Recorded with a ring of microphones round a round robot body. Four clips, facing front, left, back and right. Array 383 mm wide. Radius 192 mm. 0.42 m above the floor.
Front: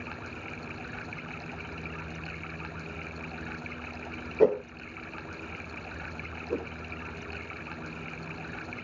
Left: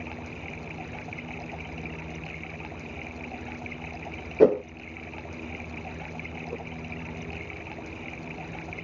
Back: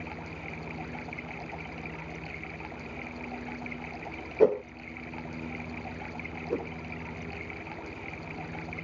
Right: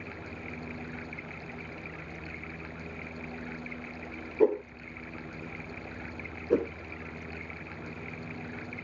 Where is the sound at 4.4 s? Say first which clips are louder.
Left 6 dB, even; 90° left.